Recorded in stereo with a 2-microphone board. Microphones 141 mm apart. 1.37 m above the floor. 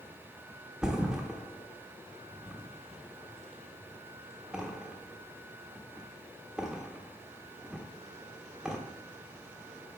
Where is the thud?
5° right (ahead or behind), 1.0 m.